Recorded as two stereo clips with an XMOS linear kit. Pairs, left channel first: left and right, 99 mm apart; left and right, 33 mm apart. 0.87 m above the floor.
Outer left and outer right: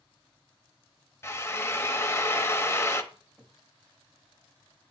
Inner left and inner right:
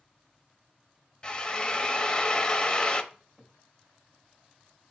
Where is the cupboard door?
Centre (ahead or behind), 3 m.